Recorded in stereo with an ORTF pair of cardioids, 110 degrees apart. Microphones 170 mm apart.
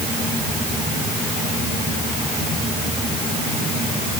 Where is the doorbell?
No doorbell in this recording.